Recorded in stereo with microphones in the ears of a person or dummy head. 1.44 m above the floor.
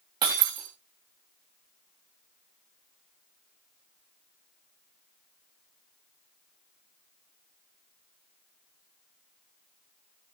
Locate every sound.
0.2 s breaking glass: 25° right (ahead or behind), 8 m